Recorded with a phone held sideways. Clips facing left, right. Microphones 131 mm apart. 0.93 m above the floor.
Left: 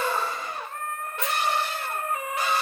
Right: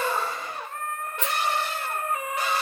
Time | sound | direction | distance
1.2 | a rattle | 80° right | 1.8 m